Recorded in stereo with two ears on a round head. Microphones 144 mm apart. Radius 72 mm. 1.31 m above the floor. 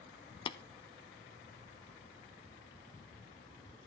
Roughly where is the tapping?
Left.